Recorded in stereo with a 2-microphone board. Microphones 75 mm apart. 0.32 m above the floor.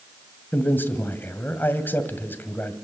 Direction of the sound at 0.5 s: 25° left (ahead or behind).